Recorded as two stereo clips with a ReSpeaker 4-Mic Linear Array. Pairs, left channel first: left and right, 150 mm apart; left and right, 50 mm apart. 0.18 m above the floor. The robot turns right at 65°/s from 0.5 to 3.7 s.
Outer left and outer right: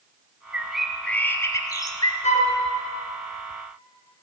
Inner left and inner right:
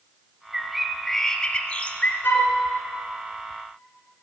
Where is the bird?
10° right (ahead or behind), 0.9 m; by 2.1 s 30° left (ahead or behind), 0.9 m.